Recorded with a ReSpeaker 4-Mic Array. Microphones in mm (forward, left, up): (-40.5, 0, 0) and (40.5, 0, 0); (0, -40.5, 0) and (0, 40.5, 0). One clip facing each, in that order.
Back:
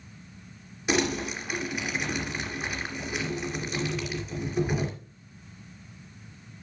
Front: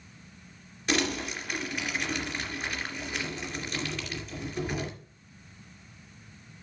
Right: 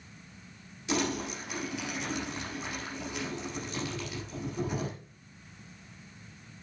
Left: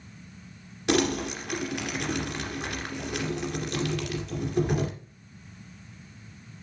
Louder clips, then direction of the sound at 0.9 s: Back 3 dB, left 6 dB; 100° left.